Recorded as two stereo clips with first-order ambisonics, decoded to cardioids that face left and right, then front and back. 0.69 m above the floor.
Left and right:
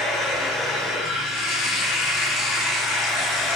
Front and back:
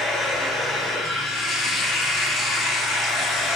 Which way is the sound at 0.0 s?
50° left.